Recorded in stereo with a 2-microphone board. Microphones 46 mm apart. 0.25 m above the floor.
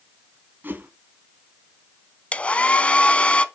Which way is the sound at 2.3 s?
30° left (ahead or behind).